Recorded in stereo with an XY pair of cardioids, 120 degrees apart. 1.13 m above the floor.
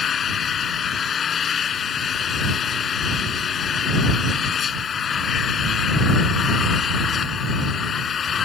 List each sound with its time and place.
0.0 s an engine running: 45° left